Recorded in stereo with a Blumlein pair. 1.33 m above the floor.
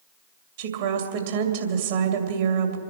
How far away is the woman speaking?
About 2.5 m.